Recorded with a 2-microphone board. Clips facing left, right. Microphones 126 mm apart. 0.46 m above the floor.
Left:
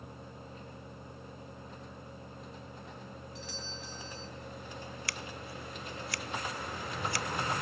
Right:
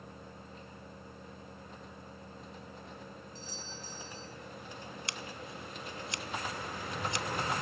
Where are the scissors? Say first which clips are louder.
Left 1 dB; 25° right (ahead or behind), 0.9 m.